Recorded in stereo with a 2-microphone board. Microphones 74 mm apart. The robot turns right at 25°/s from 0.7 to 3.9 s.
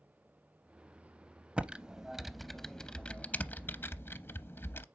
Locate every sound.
1.6 s typing on a keyboard: 15° right (ahead or behind), 0.5 m; by 4.8 s 30° left (ahead or behind), 0.5 m